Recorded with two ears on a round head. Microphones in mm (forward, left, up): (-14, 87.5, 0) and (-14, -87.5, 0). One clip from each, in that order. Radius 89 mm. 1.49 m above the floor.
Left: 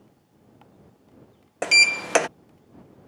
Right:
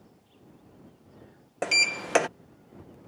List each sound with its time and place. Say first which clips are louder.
1.6 s a sliding door: left 7 dB; 15° left (ahead or behind)